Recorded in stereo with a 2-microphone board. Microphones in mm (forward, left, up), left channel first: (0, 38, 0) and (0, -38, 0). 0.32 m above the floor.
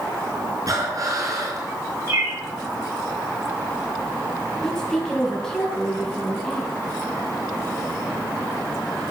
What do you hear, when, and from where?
0.7 s breathing: 45° right (ahead or behind), 4 m
2.1 s a bird: 45° right (ahead or behind), 4.5 m
4.6 s a woman speaking: 10° left (ahead or behind), 3.5 m